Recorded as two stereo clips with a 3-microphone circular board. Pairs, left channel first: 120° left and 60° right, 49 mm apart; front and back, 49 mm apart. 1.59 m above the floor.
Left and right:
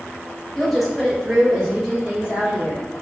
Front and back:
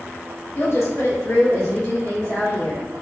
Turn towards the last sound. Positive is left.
turn(degrees=5)